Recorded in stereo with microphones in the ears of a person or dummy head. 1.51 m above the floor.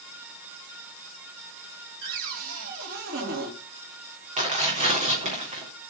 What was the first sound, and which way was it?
A cupboard door, 70° right (ahead or behind).